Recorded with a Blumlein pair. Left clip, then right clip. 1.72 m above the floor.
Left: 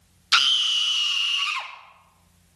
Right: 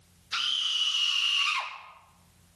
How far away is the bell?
I don't hear a bell.